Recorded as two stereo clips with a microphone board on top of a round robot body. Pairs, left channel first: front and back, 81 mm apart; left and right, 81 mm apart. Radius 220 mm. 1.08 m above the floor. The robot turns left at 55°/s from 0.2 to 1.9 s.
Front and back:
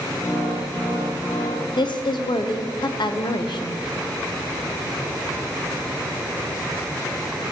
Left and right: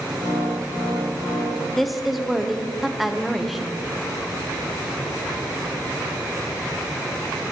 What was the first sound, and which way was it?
A woman speaking, 5° left.